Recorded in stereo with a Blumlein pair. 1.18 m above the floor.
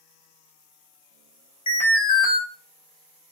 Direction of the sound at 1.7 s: 65° left.